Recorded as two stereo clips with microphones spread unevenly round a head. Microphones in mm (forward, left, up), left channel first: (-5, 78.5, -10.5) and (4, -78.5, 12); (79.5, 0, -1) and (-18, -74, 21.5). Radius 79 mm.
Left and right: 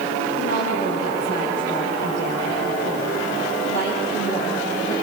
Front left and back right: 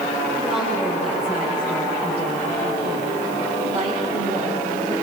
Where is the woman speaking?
120° left, 5.5 m; by 4.9 s 155° left, 6.5 m.